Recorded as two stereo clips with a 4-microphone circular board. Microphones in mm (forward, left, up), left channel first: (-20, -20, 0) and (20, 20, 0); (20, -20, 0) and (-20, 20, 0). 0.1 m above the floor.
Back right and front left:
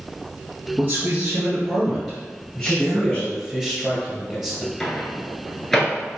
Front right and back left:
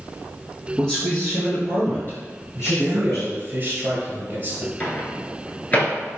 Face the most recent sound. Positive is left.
turn(degrees=-55)